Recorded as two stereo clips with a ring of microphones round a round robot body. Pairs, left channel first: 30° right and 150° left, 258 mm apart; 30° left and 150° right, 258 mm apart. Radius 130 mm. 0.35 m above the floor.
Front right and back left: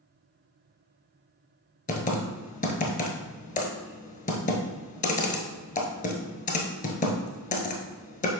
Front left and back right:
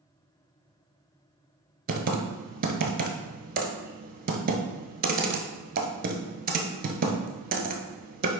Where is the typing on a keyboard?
90° right, 1.1 m.